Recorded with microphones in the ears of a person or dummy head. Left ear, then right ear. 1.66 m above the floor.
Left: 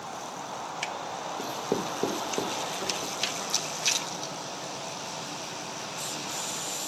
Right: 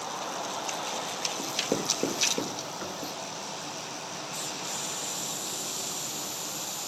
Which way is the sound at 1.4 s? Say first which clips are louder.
Left 1 dB; 5° left (ahead or behind).